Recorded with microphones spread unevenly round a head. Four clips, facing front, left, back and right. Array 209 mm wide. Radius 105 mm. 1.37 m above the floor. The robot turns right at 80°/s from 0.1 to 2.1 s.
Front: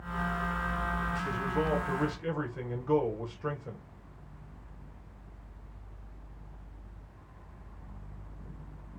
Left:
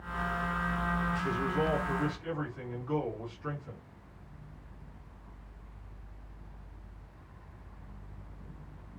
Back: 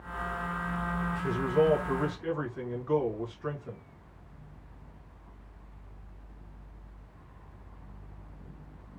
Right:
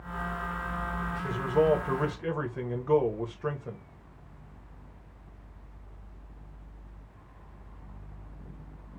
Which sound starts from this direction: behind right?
A man speaking, at 1.2 s.